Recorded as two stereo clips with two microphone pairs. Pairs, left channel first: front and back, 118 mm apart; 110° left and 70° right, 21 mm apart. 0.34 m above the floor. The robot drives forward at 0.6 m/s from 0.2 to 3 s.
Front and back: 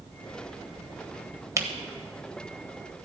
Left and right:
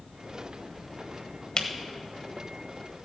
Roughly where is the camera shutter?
Behind left.